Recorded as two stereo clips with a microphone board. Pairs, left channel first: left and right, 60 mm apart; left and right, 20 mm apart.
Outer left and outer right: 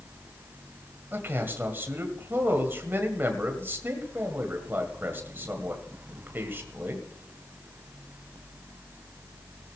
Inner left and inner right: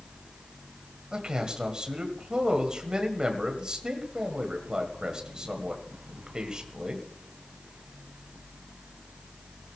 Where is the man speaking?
40° right (ahead or behind), 1.7 m.